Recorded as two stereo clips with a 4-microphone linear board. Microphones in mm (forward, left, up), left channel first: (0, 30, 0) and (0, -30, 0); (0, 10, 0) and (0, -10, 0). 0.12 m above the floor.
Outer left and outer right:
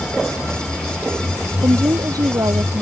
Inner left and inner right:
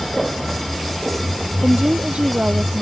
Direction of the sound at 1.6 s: 75° right (ahead or behind).